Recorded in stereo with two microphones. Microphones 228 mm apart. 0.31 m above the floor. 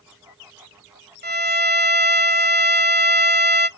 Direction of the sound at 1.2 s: 45° right (ahead or behind).